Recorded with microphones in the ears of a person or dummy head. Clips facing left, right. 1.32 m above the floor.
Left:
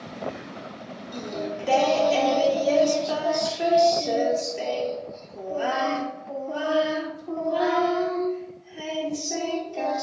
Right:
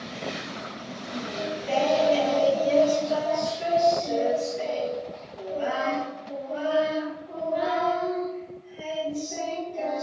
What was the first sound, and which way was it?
Singing, 70° left (ahead or behind).